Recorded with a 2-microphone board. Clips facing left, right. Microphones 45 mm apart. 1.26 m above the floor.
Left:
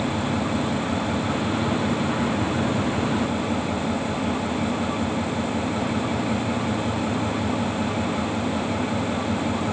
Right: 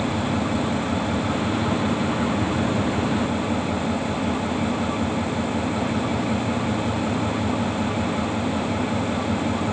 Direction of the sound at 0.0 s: Centre (ahead or behind).